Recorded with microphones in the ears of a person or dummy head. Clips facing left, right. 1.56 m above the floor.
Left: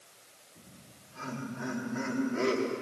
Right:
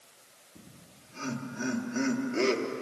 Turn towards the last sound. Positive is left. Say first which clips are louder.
# right 2 dB
turn(degrees=-35)  # may be behind; listen again after turning